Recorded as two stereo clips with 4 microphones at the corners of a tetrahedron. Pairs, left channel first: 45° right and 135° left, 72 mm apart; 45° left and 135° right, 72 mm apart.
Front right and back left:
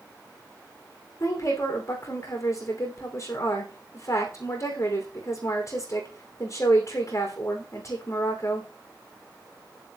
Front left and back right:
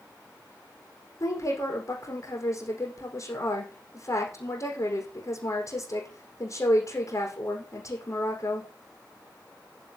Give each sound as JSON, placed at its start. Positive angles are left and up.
{"t": 1.2, "sound": "a woman speaking", "azimuth_deg": 5, "distance_m": 6.5}